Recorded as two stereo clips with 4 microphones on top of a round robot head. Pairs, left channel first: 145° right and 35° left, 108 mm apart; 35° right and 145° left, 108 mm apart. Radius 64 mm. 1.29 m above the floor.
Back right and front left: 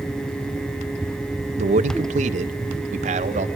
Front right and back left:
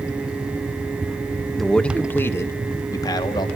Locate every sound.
1.6 s a man speaking: 55° left, 1.9 m; by 3.5 s 15° left, 3.5 m